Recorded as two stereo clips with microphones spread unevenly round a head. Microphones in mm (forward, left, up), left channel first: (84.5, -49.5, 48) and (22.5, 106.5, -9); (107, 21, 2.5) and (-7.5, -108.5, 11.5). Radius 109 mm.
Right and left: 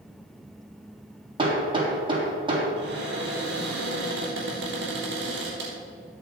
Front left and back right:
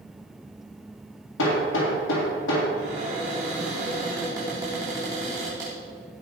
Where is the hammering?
50° left, 3.5 m.